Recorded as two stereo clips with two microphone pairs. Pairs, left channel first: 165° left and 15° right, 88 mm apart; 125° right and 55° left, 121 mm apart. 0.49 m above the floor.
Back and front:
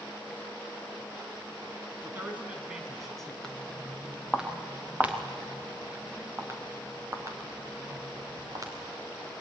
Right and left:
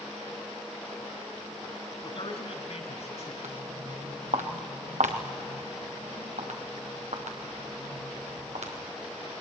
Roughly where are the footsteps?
Left.